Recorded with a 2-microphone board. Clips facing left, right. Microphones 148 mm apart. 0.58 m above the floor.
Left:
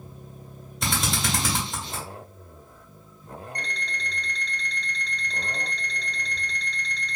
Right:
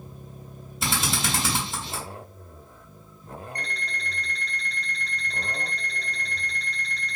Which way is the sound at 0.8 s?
5° right (ahead or behind).